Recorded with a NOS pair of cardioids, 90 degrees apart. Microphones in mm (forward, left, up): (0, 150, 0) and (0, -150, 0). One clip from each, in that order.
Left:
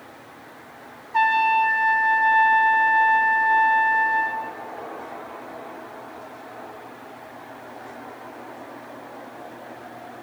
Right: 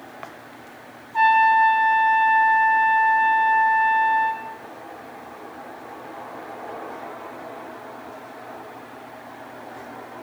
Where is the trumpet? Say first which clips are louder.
Right 3 dB; 60° left, 0.7 m.